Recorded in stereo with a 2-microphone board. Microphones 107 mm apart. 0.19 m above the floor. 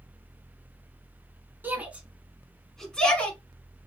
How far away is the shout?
About 1.4 m.